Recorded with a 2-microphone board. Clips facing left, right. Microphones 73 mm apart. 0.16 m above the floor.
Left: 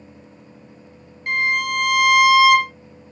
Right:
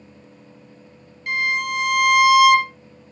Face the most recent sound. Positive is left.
turn(degrees=40)  # may be behind; listen again after turning